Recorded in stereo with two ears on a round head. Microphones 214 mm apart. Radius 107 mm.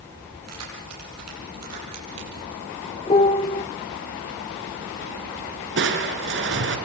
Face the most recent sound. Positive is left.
turn(degrees=-50)  # may be behind; listen again after turning